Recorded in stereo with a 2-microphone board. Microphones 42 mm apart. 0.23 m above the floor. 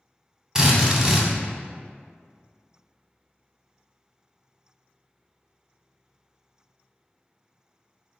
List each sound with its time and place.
0.6 s a drill: 15° right (ahead or behind), 0.5 m